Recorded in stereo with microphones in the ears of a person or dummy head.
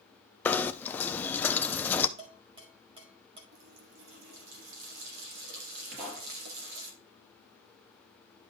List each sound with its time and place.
0.5 s knocking: 15° left (ahead or behind), 0.6 m
2.2 s dishes clattering: 30° right (ahead or behind), 1.8 m
3.5 s a running tap: 70° right (ahead or behind), 1.6 m
5.9 s a pop: 60° right (ahead or behind), 5 m